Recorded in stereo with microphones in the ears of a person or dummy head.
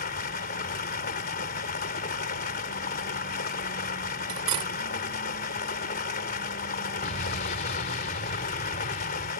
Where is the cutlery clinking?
30° right (ahead or behind).